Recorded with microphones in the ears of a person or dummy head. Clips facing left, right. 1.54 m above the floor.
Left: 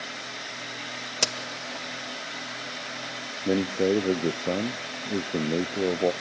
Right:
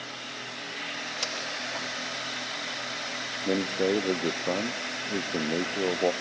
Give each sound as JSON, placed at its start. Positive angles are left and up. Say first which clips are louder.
{"t": 1.2, "sound": "a crack", "louder": "left 7 dB", "side_deg": 80, "distance_m": 2.5}
{"t": 3.5, "sound": "a man speaking", "louder": "left 3 dB", "side_deg": 10, "distance_m": 0.5}